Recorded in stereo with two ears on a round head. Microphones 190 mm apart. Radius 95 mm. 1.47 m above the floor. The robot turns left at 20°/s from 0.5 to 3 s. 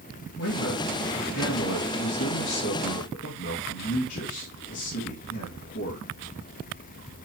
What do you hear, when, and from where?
0.4 s a man speaking: 100° left, 2.5 m; by 6.1 s 50° left, 2.5 m